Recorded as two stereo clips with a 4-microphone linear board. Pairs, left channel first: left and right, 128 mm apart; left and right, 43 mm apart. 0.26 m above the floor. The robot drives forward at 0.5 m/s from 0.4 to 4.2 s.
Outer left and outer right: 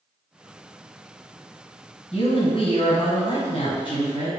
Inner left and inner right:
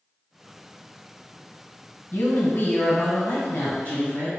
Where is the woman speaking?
50° left (ahead or behind), 1.4 m; by 4.3 s 35° left (ahead or behind), 1.8 m.